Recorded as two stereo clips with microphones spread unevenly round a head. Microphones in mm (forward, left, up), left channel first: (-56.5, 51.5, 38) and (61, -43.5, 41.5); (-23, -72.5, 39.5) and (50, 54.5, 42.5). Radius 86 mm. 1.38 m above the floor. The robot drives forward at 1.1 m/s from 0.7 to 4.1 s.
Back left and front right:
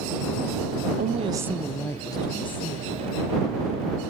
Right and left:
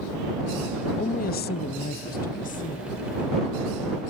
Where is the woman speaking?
70° right, 0.7 m; by 4.0 s 170° right, 3 m.